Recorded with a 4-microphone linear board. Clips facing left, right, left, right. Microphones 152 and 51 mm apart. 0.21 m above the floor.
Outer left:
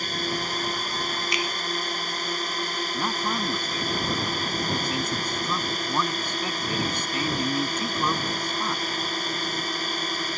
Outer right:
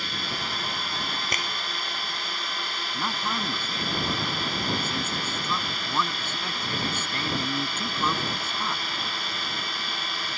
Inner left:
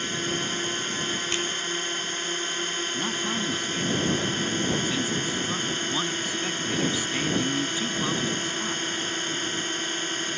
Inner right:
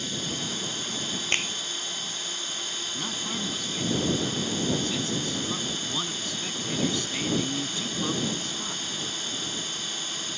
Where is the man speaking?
15° left (ahead or behind).